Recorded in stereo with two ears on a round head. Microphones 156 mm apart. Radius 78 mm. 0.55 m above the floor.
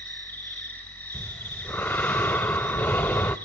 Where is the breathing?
10° left (ahead or behind), 0.5 m.